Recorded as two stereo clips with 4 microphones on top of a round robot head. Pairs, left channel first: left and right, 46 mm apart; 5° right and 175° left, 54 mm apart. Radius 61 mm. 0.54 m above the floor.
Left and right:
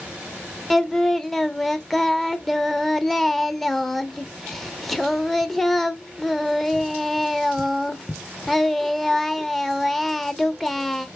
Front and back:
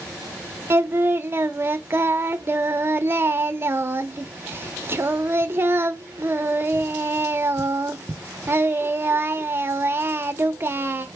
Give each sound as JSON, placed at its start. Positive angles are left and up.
{"t": 0.7, "sound": "singing", "azimuth_deg": 175, "distance_m": 0.8}